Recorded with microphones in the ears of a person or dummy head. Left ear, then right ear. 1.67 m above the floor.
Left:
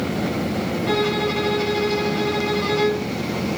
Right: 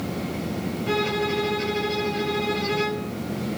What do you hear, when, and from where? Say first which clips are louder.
0.9 s a violin: left 2 dB; 35° left (ahead or behind), 4.5 m